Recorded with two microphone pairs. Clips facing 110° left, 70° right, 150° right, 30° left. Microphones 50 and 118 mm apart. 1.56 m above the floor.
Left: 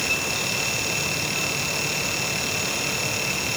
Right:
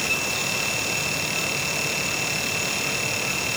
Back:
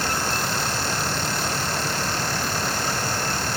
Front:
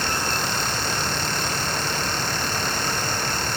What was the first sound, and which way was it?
Only background noise.